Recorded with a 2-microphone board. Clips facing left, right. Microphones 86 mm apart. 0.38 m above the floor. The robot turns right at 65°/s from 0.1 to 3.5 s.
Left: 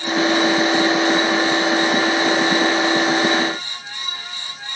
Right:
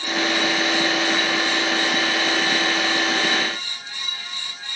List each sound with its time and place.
Only background noise.